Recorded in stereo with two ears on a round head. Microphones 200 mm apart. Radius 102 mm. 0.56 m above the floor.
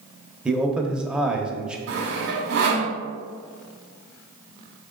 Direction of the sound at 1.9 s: 55° right (ahead or behind).